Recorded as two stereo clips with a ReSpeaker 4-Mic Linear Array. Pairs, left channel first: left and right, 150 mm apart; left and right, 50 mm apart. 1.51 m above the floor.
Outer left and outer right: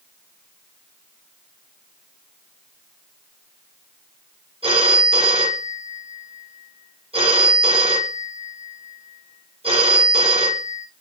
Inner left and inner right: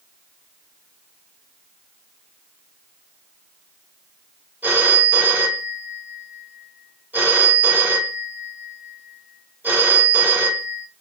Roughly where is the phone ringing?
Right.